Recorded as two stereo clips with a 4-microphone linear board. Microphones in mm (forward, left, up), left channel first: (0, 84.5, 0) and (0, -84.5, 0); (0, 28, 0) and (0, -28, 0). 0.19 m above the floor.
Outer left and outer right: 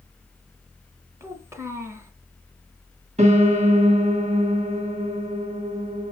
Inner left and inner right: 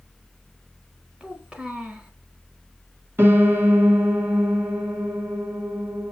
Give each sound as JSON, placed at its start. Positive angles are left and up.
{"t": 1.2, "sound": "a child speaking", "side_deg": -15, "distance_m": 1.1}
{"t": 3.2, "sound": "a piano", "side_deg": -45, "distance_m": 1.6}